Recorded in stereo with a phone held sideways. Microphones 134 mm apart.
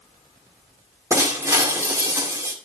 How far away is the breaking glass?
About 2 m.